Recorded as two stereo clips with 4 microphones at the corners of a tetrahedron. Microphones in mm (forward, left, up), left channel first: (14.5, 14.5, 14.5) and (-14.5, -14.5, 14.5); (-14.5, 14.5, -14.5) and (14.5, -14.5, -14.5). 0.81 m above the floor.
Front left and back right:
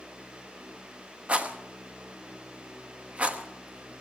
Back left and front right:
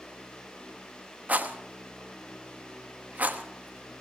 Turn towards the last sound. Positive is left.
turn(degrees=-80)